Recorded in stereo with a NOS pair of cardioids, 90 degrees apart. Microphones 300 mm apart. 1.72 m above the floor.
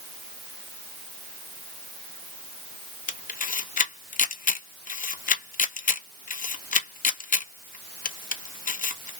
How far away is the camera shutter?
About 0.5 m.